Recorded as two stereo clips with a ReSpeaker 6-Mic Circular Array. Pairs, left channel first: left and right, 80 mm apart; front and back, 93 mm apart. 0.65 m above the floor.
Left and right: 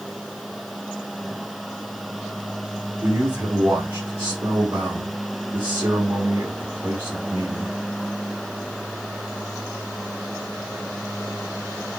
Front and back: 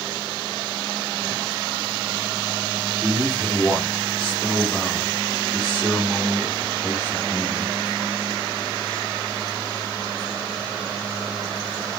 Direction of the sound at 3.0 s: 55° right.